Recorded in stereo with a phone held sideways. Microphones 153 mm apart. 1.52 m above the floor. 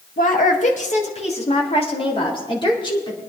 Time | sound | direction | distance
0.2 | a woman speaking | 60° left (ahead or behind) | 2 m